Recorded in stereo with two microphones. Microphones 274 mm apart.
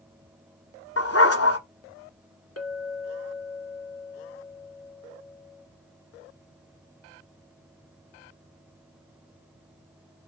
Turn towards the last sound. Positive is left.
turn(degrees=60)  # may be behind; listen again after turning